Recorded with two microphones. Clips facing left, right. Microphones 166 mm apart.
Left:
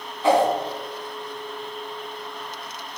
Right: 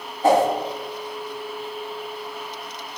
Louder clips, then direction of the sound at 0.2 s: Right 1 dB; 45° right (ahead or behind).